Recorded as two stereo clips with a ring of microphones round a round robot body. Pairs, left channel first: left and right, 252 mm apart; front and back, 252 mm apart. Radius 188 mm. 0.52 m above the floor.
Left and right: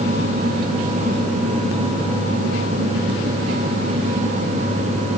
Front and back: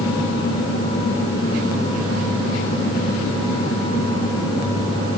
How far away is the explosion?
I don't hear an explosion.